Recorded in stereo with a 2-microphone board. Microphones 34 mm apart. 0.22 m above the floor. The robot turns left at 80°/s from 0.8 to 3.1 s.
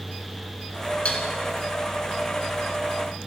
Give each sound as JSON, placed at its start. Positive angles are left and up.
{"t": 1.1, "sound": "dishes clattering", "side_deg": 40, "distance_m": 1.8}